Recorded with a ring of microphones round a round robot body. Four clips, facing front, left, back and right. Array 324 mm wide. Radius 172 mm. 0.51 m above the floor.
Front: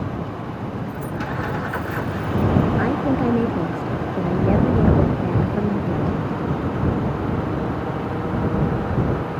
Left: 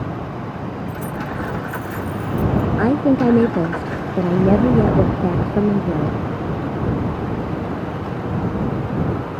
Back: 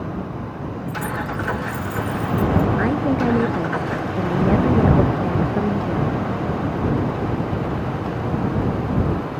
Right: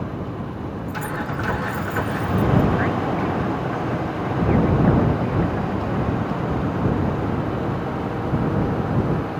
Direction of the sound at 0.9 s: 170° left.